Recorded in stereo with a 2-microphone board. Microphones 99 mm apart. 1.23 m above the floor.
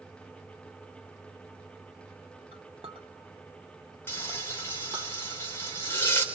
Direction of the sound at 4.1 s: 25° left (ahead or behind).